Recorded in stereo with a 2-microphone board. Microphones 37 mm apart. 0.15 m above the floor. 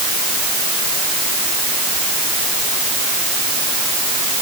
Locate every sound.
Only background noise.